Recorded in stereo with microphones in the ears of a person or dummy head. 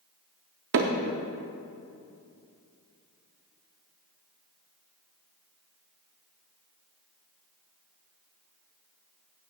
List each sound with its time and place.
0.7 s hammering: 55° right (ahead or behind), 0.7 m